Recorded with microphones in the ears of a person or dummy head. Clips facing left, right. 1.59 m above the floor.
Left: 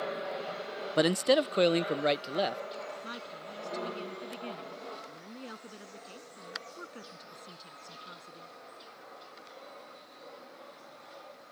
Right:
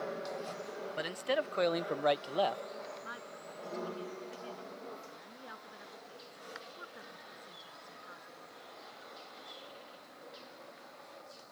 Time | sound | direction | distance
1.0 | a man speaking | 60° left (ahead or behind) | ?
3.0 | a woman speaking | 45° left (ahead or behind) | ?